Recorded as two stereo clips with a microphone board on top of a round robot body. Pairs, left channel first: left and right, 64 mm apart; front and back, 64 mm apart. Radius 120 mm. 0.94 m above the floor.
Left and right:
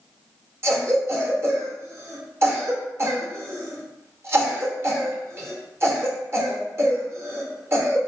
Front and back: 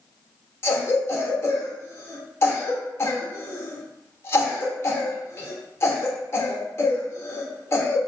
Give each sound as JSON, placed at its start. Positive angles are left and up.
{"t": 0.6, "sound": "a cough", "azimuth_deg": -45, "distance_m": 1.0}